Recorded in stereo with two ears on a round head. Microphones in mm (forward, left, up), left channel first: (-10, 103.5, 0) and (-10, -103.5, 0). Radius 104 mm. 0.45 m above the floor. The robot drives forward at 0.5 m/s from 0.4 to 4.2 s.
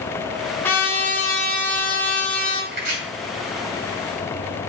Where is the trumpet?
10° left (ahead or behind), 2 m.